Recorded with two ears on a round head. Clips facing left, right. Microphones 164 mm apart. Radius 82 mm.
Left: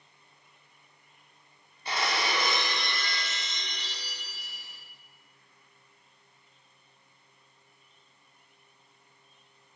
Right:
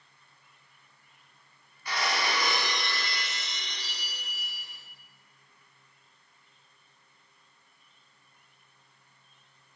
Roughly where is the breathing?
I don't hear breathing.